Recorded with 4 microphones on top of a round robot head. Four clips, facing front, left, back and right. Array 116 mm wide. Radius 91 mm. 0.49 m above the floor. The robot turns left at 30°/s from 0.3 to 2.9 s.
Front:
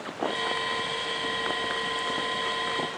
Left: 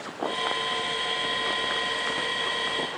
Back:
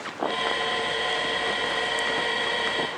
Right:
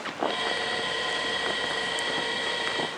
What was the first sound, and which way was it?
Only background noise.